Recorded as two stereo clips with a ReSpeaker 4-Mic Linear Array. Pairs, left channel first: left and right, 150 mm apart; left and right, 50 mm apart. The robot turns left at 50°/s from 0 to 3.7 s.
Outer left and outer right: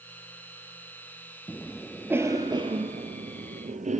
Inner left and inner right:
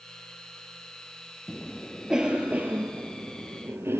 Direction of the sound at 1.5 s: 15° left (ahead or behind).